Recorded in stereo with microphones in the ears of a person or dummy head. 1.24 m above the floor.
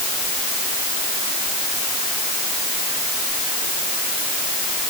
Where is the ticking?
No ticking in this recording.